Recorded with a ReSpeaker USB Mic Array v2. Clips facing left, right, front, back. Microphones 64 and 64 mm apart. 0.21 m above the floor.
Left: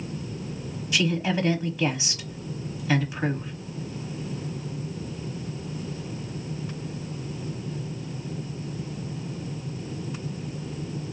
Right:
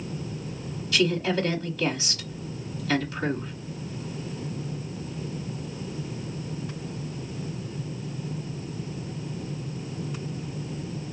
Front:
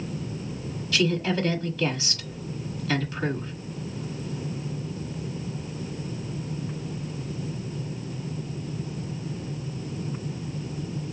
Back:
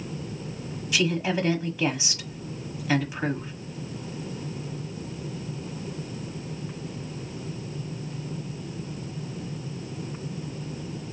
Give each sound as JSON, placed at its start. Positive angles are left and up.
{"t": 0.9, "sound": "a woman speaking", "azimuth_deg": 135, "distance_m": 1.1}